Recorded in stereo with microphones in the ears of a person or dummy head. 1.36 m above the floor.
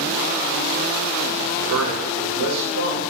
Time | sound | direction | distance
1.7 | a man speaking | 85° right | 0.7 m